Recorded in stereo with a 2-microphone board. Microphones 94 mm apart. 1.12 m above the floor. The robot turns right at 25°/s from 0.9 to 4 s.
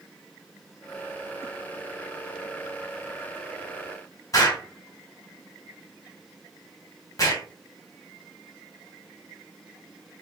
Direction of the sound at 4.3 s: 40° left (ahead or behind).